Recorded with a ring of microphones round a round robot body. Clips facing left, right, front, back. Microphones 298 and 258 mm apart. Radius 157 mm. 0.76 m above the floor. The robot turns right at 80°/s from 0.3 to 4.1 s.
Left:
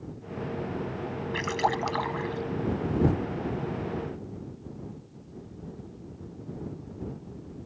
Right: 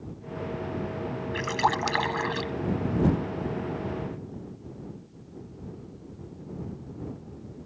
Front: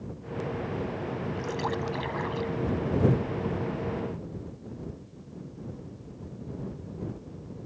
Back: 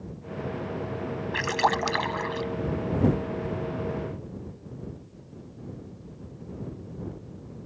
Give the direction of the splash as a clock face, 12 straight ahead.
6 o'clock.